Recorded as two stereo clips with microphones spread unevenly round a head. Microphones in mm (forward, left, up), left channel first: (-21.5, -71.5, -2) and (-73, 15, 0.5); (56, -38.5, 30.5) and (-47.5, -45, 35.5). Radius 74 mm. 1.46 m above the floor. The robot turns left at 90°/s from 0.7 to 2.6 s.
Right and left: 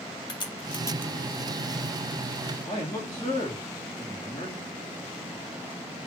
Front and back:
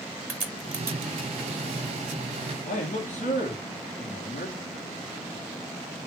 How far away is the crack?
About 2 m.